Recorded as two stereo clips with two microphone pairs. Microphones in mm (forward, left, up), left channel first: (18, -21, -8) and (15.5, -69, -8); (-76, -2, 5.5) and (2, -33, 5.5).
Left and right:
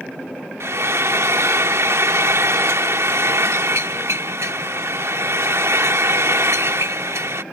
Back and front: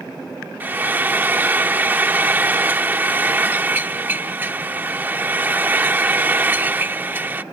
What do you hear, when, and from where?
0.6 s frying: 90° right